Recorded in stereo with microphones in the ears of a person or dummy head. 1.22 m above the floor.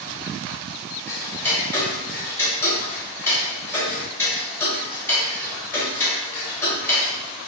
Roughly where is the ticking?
Centre.